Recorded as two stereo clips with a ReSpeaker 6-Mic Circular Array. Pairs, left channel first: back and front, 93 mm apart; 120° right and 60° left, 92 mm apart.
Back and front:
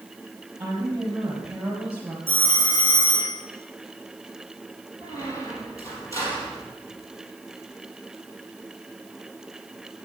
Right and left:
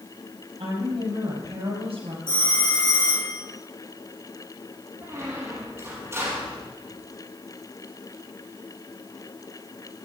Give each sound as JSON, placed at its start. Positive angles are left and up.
{"t": 0.6, "sound": "a woman speaking", "azimuth_deg": 70, "distance_m": 5.0}
{"t": 2.3, "sound": "a phone ringing", "azimuth_deg": -150, "distance_m": 7.0}
{"t": 5.0, "sound": "a squeak", "azimuth_deg": 125, "distance_m": 4.0}